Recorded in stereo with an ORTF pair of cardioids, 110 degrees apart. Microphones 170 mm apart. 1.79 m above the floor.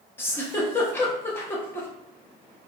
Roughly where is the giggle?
Ahead.